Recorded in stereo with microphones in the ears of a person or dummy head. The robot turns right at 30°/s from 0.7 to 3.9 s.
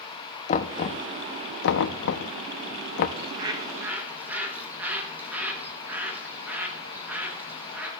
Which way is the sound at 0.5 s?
40° left (ahead or behind).